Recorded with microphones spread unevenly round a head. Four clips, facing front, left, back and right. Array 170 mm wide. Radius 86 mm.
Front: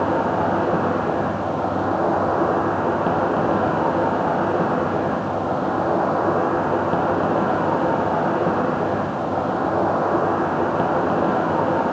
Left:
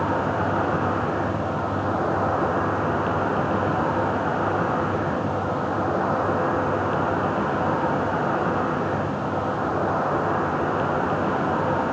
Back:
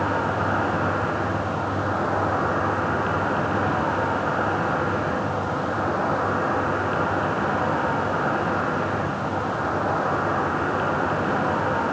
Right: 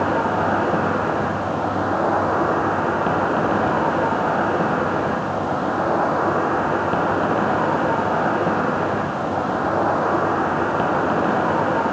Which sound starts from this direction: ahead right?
An insect, at 0.0 s.